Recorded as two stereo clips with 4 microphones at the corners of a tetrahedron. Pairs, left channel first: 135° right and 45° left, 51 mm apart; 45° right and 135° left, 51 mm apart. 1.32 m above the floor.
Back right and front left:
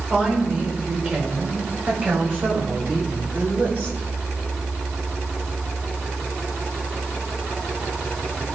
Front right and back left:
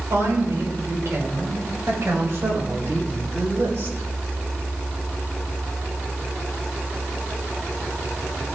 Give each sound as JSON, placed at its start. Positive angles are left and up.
{"t": 0.1, "sound": "a woman speaking", "azimuth_deg": 105, "distance_m": 5.5}